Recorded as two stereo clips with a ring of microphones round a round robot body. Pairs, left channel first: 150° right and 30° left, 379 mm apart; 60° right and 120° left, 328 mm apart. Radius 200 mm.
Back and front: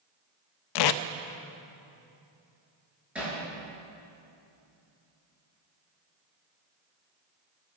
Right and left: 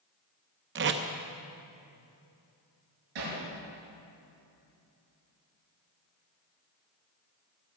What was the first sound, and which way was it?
Tape being pulled, straight behind.